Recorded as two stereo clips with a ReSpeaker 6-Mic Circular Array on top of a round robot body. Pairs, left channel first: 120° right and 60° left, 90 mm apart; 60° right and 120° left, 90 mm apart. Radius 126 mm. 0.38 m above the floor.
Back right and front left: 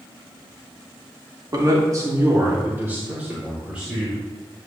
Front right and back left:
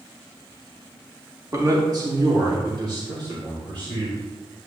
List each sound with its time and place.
1.5 s a man speaking: 80° left, 1.9 m; by 4.1 s 140° left, 3.5 m